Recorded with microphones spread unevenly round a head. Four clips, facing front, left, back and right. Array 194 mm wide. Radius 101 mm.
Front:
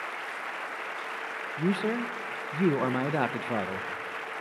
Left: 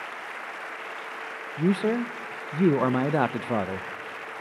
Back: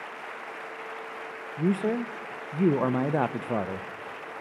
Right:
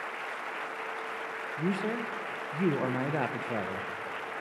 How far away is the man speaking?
About 0.5 m.